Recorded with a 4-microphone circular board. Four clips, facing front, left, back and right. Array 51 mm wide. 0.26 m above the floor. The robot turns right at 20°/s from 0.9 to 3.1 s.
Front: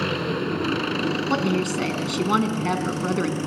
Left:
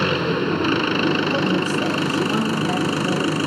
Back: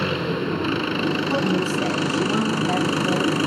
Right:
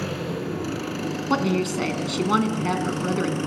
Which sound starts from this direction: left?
An engine running, at 0.0 s.